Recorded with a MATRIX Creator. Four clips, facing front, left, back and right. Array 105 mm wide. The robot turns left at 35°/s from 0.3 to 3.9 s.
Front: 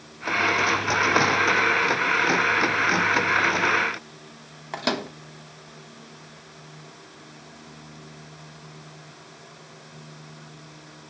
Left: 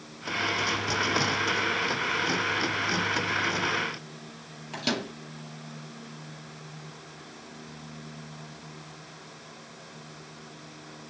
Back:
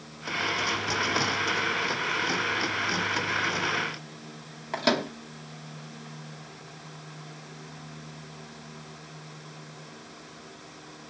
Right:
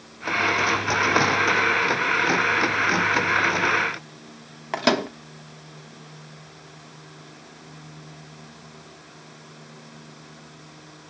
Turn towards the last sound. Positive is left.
turn(degrees=-85)